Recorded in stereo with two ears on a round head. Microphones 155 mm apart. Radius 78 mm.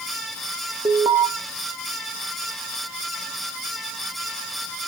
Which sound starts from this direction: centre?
An alarm, at 0.8 s.